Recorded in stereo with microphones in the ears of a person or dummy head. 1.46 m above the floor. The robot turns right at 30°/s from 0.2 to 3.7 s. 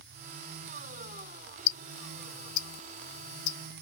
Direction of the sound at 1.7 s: 65° left (ahead or behind).